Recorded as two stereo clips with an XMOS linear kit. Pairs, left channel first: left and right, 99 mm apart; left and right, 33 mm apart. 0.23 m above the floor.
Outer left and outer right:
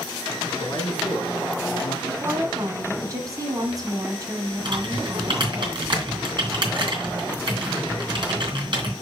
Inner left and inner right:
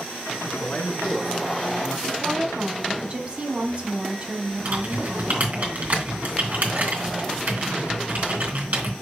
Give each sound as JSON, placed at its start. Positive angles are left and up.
{"t": 0.5, "sound": "a man speaking", "side_deg": 50, "distance_m": 3.0}
{"t": 2.1, "sound": "a woman speaking", "side_deg": -40, "distance_m": 1.7}
{"t": 4.7, "sound": "typing on a keyboard", "side_deg": -55, "distance_m": 3.0}